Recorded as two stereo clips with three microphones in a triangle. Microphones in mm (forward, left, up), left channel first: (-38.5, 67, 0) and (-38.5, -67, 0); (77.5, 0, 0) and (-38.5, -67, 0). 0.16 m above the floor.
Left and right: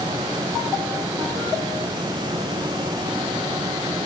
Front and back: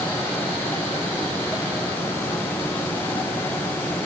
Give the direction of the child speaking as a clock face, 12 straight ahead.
I don't hear a child speaking.